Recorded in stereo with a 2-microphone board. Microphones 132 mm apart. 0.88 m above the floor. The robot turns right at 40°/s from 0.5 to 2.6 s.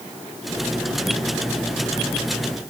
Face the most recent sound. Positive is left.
No sound to turn to.